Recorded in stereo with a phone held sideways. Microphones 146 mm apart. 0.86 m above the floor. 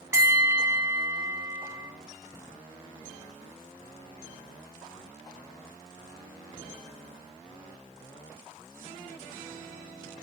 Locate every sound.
0.1 s a bell: 15° right (ahead or behind), 3.5 m